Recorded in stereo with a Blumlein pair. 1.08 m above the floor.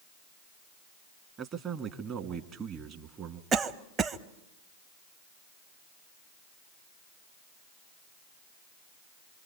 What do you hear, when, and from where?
1.4 s a man speaking: 30° right, 1.6 m
3.5 s a cough: 15° right, 0.9 m